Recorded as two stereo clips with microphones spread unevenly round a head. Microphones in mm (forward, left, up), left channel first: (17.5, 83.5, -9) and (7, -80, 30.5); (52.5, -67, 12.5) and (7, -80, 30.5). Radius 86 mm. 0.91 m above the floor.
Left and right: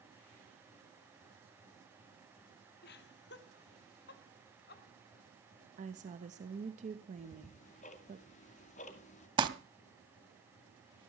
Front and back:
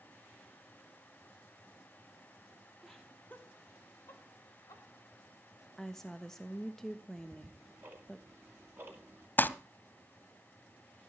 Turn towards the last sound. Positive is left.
turn(degrees=-40)